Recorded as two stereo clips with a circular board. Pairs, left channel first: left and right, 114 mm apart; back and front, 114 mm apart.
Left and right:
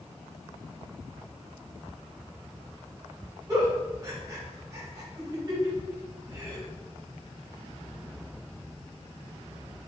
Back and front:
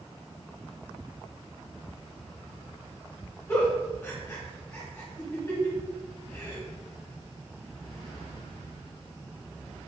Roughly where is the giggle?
Behind right.